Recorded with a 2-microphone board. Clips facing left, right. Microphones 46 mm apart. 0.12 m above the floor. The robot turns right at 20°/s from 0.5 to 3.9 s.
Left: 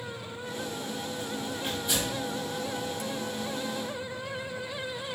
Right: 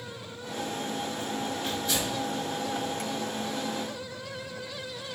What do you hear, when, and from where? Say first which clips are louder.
1.6 s tearing paper: left 2 dB; 10° left (ahead or behind), 1.7 m; by 2.1 s 20° left (ahead or behind), 1.7 m